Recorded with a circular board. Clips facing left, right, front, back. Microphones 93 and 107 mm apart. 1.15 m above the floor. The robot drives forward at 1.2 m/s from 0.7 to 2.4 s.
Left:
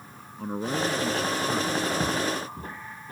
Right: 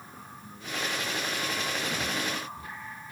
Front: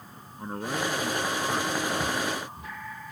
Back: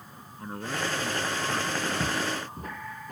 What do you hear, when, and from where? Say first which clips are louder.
0.4 s a man speaking: left 9 dB, front 2 dB; 70° left; by 1.9 s 75° left
2.0 s footsteps: left 5 dB, front 1 dB; 130° left; by 3.1 s 140° left